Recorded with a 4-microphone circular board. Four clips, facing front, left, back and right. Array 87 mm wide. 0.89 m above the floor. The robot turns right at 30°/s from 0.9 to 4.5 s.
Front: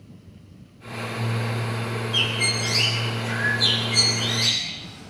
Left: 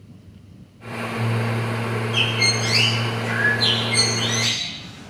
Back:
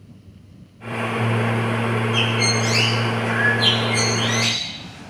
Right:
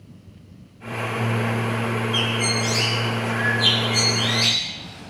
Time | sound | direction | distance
2.1 | a bird | 135° left | 5.5 m